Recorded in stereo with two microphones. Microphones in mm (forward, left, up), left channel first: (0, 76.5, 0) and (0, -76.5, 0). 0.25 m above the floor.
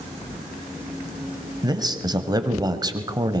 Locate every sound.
1.6 s a man speaking: 25° right (ahead or behind), 1.2 m